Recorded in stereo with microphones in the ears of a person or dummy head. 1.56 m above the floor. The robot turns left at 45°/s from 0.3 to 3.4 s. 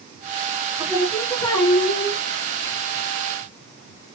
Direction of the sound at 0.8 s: 170° right.